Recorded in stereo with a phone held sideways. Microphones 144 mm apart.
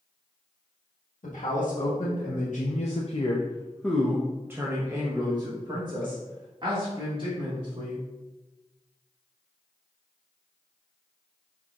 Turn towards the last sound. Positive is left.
turn(degrees=-40)  # may be behind; listen again after turning